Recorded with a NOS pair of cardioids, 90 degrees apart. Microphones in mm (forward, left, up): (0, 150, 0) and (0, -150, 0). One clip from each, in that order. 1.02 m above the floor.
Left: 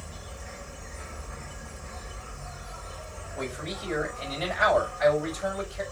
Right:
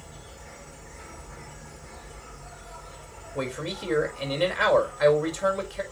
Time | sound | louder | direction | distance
0.0 | an insect | left 3 dB | 15° left | 1.8 m
3.4 | a man speaking | right 3 dB | 50° right | 5.5 m